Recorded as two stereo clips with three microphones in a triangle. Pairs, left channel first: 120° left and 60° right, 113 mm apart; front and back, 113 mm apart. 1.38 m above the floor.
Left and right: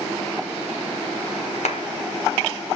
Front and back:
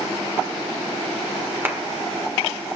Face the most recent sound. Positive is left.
turn(degrees=110)